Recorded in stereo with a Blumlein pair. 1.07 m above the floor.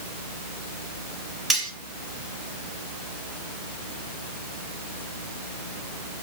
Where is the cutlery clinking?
10° right, 2 m.